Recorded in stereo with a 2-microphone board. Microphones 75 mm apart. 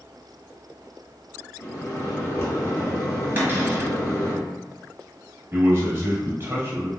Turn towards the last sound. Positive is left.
turn(degrees=-30)  # may be behind; listen again after turning